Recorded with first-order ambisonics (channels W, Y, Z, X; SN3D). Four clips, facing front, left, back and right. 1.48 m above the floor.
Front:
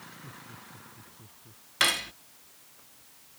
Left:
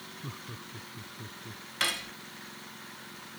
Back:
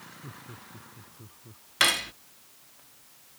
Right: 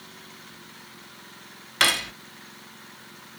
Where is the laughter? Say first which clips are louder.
Left 2 dB, back 1 dB; 105° left.